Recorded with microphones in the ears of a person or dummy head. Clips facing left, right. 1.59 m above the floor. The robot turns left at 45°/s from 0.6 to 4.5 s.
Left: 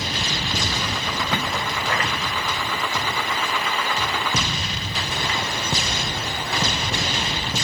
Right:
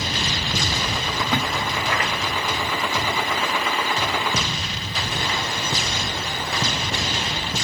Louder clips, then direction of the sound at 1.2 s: Right 3 dB; 5° right (ahead or behind).